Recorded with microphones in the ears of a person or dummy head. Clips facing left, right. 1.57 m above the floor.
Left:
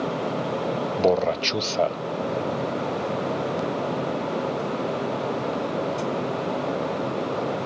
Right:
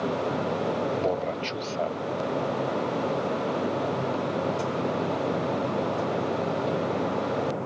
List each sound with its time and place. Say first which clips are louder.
1.0 s a man speaking: left 6 dB; 60° left (ahead or behind)